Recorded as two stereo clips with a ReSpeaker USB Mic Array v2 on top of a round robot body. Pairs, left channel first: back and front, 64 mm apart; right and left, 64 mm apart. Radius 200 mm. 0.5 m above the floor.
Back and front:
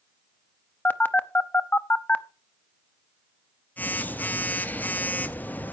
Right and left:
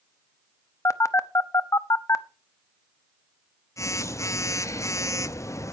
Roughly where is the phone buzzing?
Behind right.